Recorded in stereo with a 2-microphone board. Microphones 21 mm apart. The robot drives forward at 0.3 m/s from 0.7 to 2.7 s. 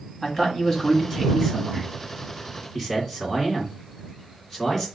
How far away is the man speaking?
About 1.5 m.